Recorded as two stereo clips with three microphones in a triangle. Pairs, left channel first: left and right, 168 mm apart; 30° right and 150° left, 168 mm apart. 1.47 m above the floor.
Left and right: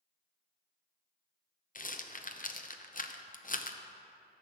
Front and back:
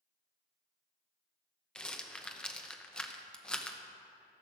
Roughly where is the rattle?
Ahead left.